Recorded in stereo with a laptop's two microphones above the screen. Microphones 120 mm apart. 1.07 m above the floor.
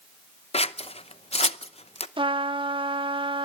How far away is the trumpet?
About 1.2 m.